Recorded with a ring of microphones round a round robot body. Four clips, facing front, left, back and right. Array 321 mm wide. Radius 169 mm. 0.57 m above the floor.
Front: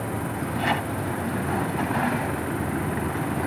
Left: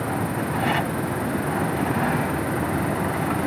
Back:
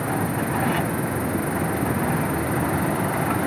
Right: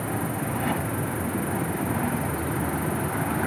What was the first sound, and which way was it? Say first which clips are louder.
An insect: left 3 dB, back 5 dB; 150° right.